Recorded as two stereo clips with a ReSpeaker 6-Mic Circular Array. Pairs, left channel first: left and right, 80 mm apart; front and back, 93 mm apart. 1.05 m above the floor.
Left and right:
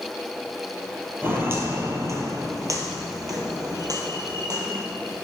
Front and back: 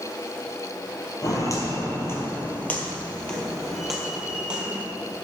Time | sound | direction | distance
1.2 | footsteps | 35° right | 1.8 m